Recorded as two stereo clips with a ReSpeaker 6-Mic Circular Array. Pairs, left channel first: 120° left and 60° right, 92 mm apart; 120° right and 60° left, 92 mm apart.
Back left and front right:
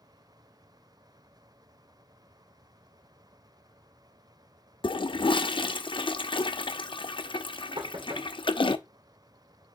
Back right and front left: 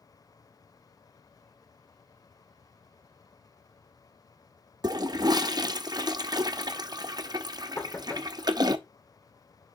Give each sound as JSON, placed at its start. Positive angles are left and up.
{"t": 4.8, "sound": "a toilet flushing", "azimuth_deg": 100, "distance_m": 0.6}
{"t": 7.8, "sound": "knocking", "azimuth_deg": -65, "distance_m": 1.8}